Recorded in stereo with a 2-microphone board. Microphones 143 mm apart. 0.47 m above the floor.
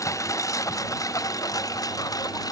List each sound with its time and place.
0.0 s a lawn mower: 20° left (ahead or behind); by 2.5 s 25° left (ahead or behind)